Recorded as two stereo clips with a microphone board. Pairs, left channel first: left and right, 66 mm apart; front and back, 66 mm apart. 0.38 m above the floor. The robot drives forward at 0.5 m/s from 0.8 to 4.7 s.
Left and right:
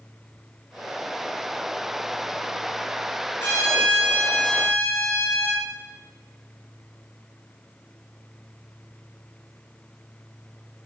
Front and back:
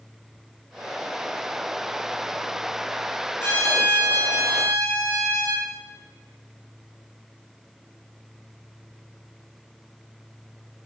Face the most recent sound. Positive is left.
turn(degrees=45)